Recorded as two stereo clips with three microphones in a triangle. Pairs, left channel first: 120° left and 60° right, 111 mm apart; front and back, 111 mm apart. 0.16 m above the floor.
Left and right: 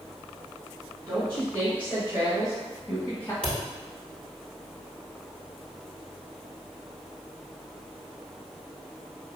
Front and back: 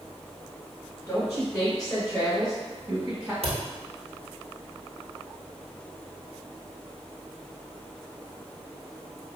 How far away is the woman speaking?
About 1.8 m.